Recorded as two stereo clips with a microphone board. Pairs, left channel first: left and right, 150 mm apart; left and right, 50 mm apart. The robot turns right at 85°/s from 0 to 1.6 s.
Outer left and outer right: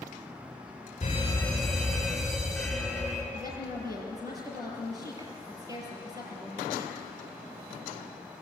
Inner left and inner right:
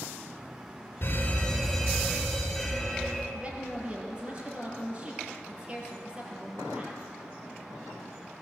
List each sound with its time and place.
1.0 s a fire alarm: 130° left, 4.5 m; by 3.2 s straight behind, 4.5 m
3.3 s a woman speaking: 25° right (ahead or behind), 6 m